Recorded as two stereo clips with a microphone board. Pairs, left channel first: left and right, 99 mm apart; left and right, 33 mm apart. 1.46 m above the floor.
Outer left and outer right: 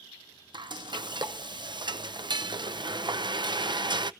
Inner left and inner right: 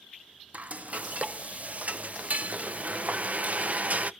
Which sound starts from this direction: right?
Frying, at 0.5 s.